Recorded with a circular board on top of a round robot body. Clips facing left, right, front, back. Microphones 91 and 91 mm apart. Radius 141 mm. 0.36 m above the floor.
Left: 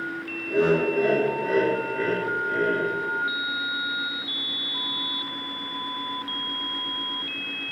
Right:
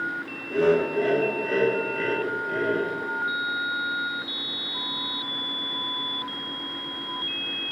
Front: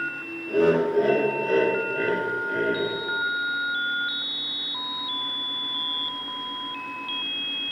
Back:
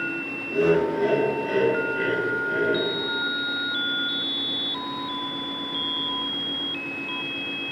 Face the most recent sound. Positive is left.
turn(degrees=-170)